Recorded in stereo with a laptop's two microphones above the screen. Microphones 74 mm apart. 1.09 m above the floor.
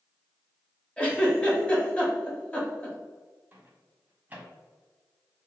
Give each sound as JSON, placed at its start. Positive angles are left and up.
{"t": 1.0, "sound": "a giggle", "side_deg": 15, "distance_m": 1.7}
{"t": 3.5, "sound": "a microwave", "side_deg": -20, "distance_m": 1.4}